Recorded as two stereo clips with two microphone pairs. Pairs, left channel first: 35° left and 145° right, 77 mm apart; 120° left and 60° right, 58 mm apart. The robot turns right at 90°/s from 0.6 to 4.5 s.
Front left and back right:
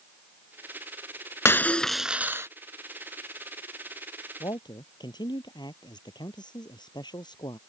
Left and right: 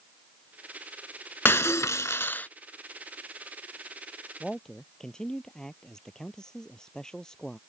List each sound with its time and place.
1.4 s breaking glass: 85° left; by 2.5 s 175° left
4.4 s a man speaking: 30° left; by 7.6 s 40° left